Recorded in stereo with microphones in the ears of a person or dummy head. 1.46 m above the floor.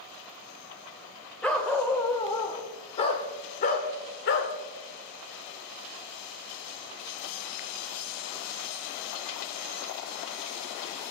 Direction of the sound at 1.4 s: 5° left (ahead or behind).